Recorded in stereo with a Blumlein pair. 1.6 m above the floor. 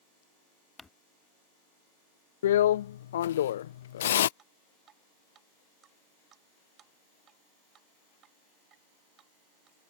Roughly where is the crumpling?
Ahead.